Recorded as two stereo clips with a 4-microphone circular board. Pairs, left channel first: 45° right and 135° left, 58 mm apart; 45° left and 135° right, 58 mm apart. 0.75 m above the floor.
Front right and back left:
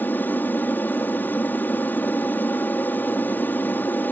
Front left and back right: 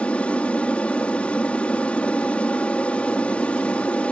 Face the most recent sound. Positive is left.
turn(degrees=-10)